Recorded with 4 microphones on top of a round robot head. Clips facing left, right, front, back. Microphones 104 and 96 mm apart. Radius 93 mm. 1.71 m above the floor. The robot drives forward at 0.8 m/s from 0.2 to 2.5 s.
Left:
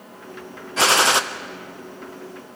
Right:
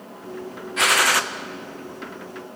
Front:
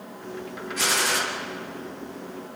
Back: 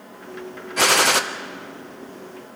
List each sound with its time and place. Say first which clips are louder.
0.8 s a gunshot: left 3 dB, back 8 dB; 145° left, 0.9 m; by 1.2 s 155° left, 1.2 m